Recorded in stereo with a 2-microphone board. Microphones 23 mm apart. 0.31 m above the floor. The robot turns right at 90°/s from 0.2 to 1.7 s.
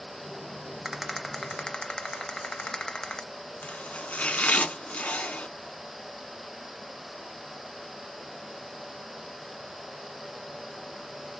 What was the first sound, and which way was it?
A rattle, 30° right.